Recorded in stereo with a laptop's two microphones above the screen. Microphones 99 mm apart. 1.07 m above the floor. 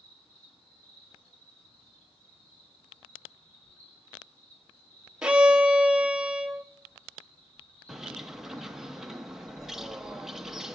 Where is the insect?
80° left, 6 m.